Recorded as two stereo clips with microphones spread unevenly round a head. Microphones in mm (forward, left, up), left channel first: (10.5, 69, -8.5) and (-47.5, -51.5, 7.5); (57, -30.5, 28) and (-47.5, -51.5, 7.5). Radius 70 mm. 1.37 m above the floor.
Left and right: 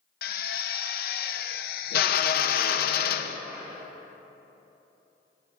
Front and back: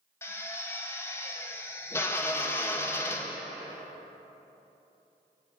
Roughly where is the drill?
Left.